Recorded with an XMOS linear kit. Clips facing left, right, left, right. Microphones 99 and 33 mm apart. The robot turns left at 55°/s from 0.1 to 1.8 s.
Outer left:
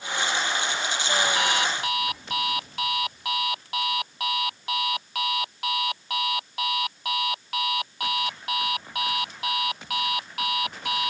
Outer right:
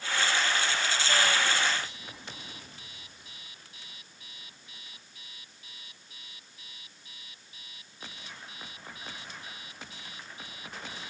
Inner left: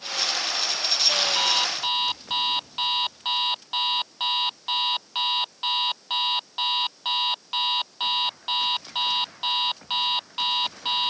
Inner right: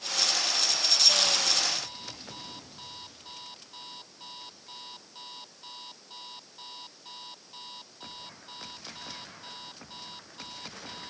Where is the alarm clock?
75° left (ahead or behind); by 11.1 s 80° left.